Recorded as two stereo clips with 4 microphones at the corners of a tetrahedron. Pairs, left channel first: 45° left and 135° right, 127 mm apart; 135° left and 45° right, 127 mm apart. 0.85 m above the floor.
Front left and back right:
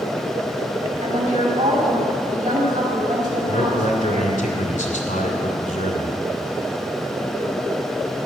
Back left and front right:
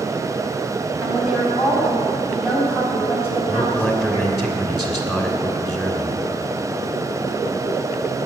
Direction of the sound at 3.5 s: 45° left.